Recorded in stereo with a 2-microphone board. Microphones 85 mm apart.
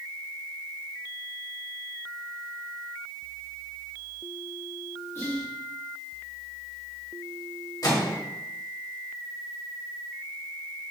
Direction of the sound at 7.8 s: 45° left (ahead or behind).